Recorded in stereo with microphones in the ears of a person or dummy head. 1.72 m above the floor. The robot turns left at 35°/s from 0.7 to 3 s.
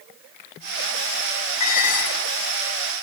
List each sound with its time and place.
1.6 s dishes clattering: 40° left (ahead or behind), 2.5 m; by 2.4 s 65° left (ahead or behind), 2.5 m